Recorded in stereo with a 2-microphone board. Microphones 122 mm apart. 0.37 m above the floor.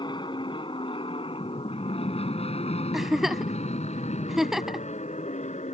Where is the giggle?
5° right (ahead or behind).